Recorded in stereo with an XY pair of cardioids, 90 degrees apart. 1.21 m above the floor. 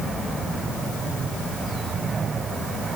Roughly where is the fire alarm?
No fire alarm in this recording.